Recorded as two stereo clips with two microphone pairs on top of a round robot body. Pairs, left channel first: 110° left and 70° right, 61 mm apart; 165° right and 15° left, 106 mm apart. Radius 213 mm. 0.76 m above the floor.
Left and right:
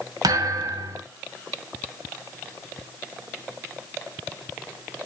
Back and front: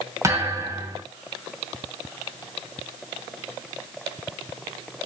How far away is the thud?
About 0.9 m.